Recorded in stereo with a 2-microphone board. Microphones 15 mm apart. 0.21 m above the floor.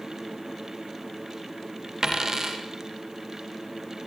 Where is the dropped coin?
35° right (ahead or behind), 5 m.